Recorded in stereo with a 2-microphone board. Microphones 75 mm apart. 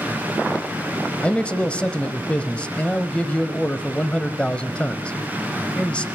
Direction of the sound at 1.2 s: 15° left (ahead or behind).